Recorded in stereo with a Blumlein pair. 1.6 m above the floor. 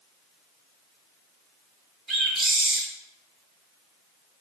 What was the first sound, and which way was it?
A bird, 20° right.